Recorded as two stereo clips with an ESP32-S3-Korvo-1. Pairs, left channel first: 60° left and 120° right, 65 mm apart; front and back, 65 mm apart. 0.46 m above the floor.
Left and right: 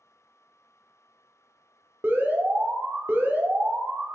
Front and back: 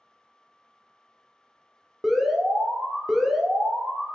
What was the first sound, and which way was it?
An alarm, 100° right.